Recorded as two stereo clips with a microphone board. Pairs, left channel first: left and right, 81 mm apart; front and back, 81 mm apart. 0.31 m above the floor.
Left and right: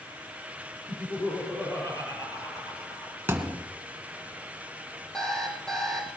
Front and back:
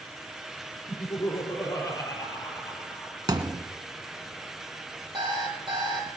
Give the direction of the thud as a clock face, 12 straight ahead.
5 o'clock.